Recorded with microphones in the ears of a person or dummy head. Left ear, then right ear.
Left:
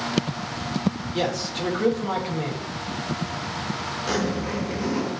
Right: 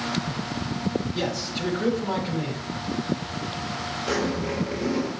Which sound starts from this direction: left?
A zipper, at 4.1 s.